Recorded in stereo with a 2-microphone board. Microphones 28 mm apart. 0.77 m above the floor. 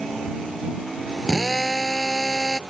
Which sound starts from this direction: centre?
A drill, at 1.3 s.